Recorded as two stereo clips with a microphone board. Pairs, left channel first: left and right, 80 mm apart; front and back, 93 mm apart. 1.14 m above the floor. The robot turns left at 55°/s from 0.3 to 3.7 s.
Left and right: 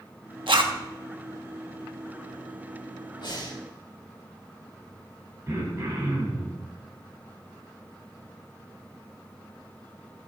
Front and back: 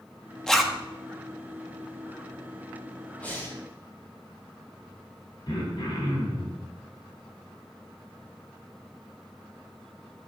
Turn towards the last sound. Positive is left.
turn(degrees=-35)